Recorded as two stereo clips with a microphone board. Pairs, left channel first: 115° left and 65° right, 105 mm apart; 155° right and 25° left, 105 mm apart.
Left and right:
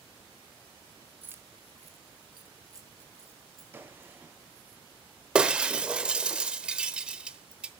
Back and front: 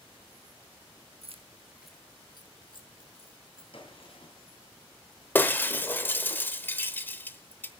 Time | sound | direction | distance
1.2 | keys jangling | 5° left | 1.0 m
3.7 | a gunshot | 135° right | 3 m
5.3 | breaking glass | 130° right | 0.9 m